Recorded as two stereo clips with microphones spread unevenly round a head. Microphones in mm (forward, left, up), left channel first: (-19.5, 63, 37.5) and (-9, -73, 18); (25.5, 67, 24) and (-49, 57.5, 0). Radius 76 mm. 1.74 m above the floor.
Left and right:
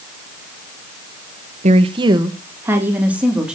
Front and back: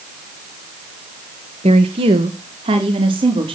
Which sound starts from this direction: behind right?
A woman speaking, at 1.6 s.